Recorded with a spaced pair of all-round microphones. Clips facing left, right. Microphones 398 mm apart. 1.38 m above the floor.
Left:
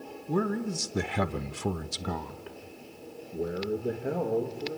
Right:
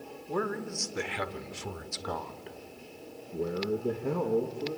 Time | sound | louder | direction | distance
0.3 | a man speaking | left 4 dB | 45° left (ahead or behind) | 1.7 m